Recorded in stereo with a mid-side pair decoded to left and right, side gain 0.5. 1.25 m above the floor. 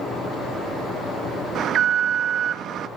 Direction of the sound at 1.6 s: 60° right.